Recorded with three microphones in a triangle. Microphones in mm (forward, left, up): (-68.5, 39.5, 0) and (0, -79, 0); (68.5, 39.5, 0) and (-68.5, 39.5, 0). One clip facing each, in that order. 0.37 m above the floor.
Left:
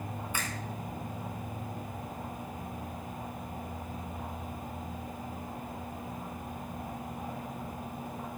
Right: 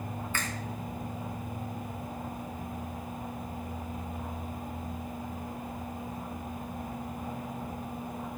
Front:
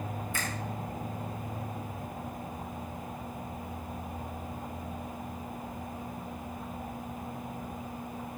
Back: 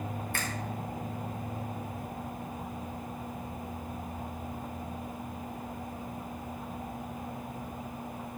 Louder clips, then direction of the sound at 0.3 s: Right 1 dB, even; 165° right.